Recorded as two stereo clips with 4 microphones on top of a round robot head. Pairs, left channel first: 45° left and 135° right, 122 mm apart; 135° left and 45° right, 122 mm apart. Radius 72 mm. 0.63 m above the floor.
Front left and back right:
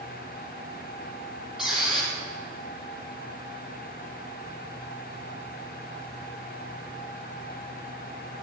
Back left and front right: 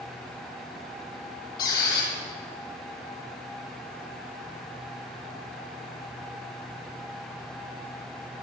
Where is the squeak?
140° left, 4 m.